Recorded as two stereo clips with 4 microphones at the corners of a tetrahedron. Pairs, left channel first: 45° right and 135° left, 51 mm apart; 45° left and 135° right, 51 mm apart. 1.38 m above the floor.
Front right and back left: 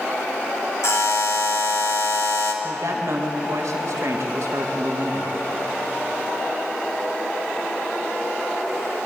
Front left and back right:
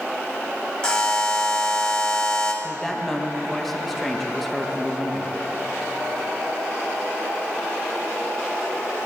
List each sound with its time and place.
0.8 s a buzzer: 30° right, 3 m
2.6 s a woman speaking: 130° left, 1.9 m